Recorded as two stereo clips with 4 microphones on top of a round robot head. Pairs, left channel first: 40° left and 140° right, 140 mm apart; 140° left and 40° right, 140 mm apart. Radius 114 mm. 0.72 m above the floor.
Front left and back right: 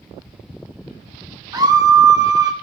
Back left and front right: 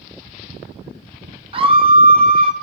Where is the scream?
80° right, 1.1 m.